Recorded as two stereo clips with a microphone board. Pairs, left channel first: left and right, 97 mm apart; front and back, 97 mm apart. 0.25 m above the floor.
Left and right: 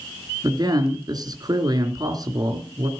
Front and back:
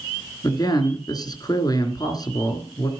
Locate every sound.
0.4 s a man speaking: 45° right, 3 m